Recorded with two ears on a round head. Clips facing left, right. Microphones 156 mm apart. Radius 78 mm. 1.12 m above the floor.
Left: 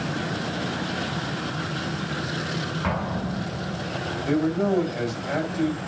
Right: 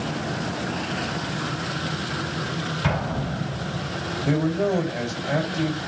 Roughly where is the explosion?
Right.